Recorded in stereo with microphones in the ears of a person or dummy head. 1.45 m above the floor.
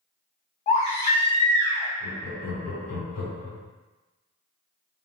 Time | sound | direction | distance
0.7 | a baby crying | 35° left (ahead or behind) | 0.7 m
2.0 | laughter | 80° left | 1.5 m